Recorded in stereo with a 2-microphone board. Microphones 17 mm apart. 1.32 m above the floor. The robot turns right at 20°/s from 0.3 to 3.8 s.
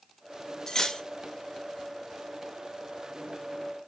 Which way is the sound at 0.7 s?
35° left (ahead or behind).